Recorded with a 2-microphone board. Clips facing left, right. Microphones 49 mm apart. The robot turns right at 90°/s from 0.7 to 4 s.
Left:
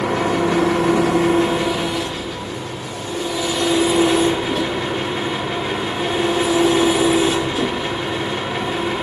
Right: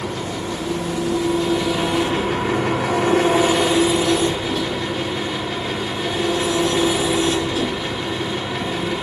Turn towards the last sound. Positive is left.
turn(degrees=20)